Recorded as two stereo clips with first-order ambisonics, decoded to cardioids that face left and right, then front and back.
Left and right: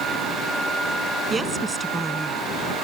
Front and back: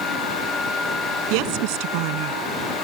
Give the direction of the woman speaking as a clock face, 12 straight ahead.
6 o'clock.